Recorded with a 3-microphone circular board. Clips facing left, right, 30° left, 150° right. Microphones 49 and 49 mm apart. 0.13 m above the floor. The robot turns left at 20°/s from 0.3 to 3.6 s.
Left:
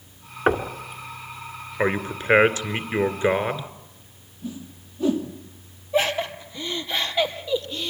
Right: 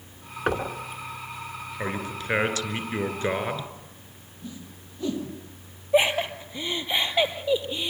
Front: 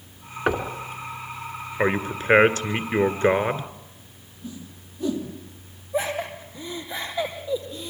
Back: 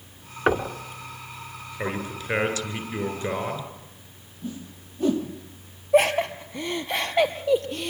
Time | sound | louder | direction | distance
0.5 | knocking | left 5 dB, back 2 dB | 135° left | 1.5 m
1.8 | a man speaking | left 8 dB, front 7 dB | 60° left | 1.7 m
4.4 | a whoosh | left 6 dB, back 3 dB | 160° left | 3 m
5.9 | laughter | right 1 dB, back 7 dB | 160° right | 3 m